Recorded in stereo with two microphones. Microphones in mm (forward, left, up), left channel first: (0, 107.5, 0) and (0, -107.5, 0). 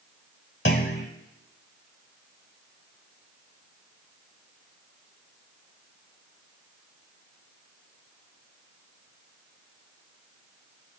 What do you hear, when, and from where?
0.7 s a clunk: 55° left (ahead or behind), 1.3 m